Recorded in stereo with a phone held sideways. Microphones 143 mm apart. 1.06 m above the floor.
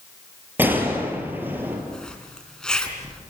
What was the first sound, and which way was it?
A gunshot, 15° right (ahead or behind).